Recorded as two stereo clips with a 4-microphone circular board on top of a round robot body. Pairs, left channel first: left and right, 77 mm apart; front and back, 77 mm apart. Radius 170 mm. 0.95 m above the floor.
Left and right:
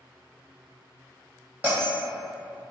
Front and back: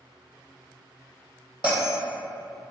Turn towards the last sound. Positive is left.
turn(degrees=-30)